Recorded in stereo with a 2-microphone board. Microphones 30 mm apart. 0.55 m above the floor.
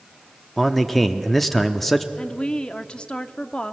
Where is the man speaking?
5° left (ahead or behind), 0.7 m.